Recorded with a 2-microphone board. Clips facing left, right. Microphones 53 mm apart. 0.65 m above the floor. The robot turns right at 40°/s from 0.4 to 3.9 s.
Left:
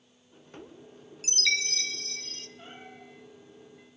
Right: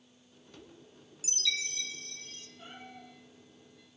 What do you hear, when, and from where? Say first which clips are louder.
1.2 s a chime: left 7 dB; 60° left, 0.8 m; by 2.5 s 110° left, 0.8 m
2.6 s a cat meowing: left 2 dB; 70° left (ahead or behind), 8 m; by 3.1 s 45° left (ahead or behind), 8 m